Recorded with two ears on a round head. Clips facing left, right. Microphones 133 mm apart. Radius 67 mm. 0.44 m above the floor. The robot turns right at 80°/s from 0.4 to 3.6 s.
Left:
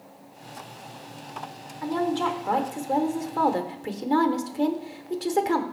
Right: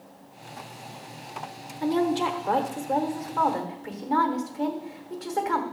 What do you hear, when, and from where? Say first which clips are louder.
1.8 s a woman speaking: right 2 dB; 55° right, 1.0 m; by 5.6 s 90° left, 1.0 m